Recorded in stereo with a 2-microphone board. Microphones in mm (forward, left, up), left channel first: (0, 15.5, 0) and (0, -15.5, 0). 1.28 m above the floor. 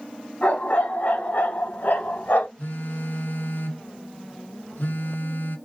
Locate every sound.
0.4 s a dog barking: 65° left (ahead or behind), 4 m; by 2.5 s 75° left (ahead or behind), 3 m
2.6 s a phone buzzing: 70° left (ahead or behind), 3.5 m